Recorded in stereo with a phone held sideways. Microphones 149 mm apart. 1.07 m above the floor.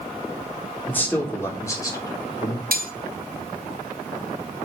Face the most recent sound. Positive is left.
turn(degrees=-80)